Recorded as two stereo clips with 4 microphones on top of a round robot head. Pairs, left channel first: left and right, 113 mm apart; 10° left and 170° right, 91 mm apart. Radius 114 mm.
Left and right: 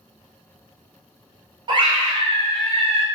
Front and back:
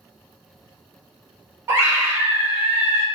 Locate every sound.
1.7 s a scream: 115° right, 1.3 m